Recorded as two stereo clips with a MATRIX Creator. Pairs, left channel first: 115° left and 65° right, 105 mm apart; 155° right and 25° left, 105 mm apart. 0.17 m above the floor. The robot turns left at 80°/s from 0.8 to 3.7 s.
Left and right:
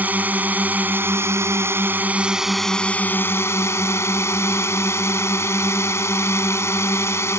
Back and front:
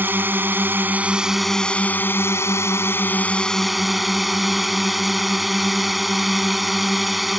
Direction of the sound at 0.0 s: 20° right.